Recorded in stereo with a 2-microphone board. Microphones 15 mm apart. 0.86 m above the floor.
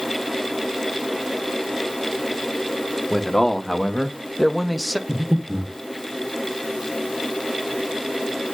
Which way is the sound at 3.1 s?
30° left (ahead or behind).